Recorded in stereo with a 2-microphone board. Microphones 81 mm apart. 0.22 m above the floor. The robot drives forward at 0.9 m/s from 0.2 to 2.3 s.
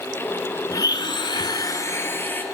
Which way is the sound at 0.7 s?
50° left (ahead or behind).